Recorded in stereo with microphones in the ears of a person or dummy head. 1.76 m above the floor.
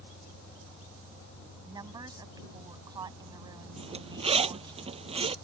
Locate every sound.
0.0 s an engine running: 35° left (ahead or behind)
1.6 s a woman speaking: 25° right (ahead or behind)
3.8 s a zipper: 30° right (ahead or behind)